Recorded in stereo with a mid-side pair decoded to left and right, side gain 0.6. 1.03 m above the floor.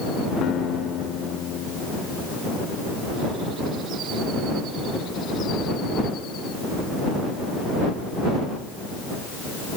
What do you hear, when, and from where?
0.4 s a guitar: 55° left